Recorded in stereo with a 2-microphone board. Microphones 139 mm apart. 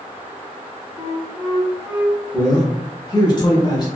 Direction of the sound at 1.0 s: 45° right (ahead or behind).